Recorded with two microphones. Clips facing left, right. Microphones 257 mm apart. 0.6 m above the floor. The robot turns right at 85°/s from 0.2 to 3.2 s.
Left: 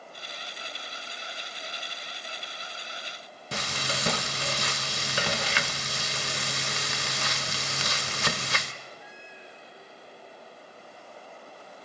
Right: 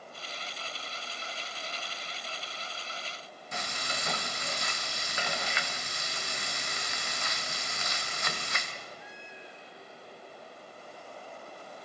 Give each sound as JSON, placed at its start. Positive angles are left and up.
{"t": 3.5, "sound": "frying", "side_deg": 85, "distance_m": 0.8}